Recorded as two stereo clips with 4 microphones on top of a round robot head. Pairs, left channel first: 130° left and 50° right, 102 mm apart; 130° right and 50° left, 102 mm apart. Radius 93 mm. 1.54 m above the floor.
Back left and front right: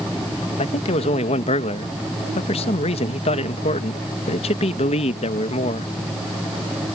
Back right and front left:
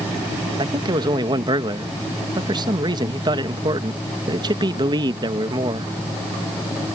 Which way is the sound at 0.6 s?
100° left.